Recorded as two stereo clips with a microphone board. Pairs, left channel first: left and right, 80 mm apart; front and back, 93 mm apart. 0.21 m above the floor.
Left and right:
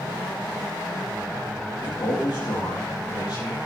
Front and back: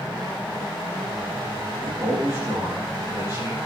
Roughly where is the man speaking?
Behind left.